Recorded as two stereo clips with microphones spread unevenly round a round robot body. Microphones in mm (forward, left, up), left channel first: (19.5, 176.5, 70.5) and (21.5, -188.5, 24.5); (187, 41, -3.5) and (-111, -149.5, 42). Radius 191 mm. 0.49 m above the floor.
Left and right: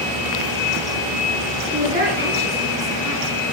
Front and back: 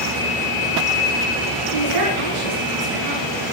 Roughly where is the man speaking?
Behind.